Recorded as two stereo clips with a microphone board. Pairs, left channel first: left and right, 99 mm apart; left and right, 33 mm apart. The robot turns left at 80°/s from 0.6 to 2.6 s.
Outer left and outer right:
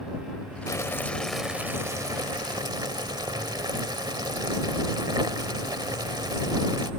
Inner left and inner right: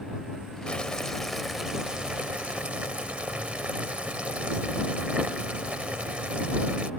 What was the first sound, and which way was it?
Boiling, 55° left.